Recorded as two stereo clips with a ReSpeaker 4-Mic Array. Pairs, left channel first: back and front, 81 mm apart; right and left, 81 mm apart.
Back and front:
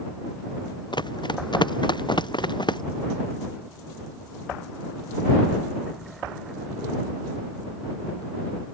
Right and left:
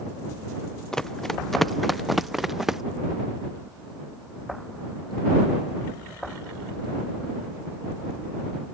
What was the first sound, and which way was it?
Running footsteps, 170° right.